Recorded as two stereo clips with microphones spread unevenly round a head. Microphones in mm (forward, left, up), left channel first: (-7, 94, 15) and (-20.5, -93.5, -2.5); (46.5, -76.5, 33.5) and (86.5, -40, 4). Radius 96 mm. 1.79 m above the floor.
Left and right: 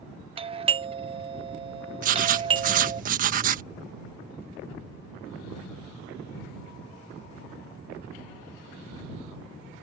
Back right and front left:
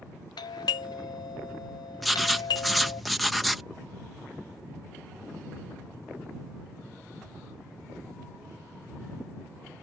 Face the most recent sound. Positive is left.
turn(degrees=-100)